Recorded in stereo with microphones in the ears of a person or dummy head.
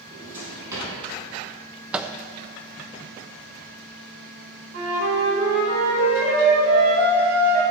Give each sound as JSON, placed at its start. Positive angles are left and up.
{"t": 0.1, "sound": "a drawer", "side_deg": -15, "distance_m": 4.5}
{"t": 1.9, "sound": "a microwave", "side_deg": -5, "distance_m": 0.5}
{"t": 4.7, "sound": "a flute", "side_deg": -60, "distance_m": 4.5}